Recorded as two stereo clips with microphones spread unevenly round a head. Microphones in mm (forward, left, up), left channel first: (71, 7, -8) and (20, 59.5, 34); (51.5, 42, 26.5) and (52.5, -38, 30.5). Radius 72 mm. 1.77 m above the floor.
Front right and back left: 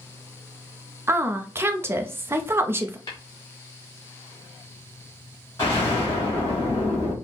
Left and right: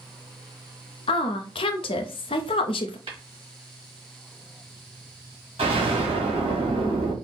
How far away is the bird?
I don't hear a bird.